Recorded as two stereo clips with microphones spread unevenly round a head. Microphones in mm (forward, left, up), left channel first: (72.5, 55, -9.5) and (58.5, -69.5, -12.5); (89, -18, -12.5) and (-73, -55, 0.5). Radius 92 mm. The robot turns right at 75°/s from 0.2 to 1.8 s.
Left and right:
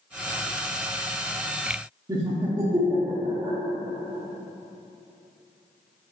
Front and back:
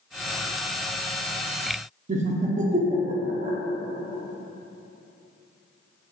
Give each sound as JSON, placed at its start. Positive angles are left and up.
{"t": 2.1, "sound": "laughter", "azimuth_deg": -150, "distance_m": 0.5}